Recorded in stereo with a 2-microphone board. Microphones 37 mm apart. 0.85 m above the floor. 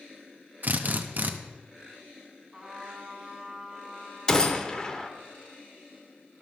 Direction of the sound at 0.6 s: 45° right (ahead or behind).